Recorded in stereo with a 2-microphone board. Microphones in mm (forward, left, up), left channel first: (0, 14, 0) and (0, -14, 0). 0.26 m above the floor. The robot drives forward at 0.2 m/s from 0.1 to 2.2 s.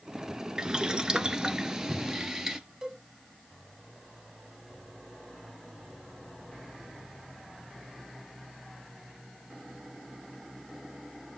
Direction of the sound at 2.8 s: 25° right (ahead or behind).